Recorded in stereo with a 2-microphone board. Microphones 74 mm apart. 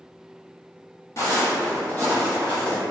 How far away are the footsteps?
About 1.0 m.